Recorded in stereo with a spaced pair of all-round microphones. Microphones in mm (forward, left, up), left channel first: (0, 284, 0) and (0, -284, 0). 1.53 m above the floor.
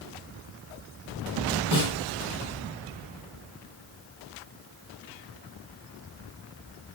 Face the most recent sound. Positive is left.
turn(degrees=-60)  # may be behind; listen again after turning